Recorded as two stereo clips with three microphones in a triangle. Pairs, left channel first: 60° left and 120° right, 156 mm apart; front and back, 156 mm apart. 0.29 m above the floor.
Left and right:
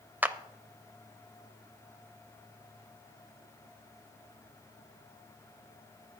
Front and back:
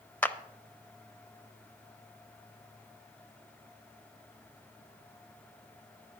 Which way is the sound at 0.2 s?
60° right.